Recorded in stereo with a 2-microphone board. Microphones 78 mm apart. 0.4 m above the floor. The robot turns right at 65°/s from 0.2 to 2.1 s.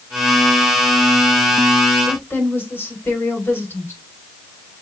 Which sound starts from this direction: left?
A woman speaking, at 2.1 s.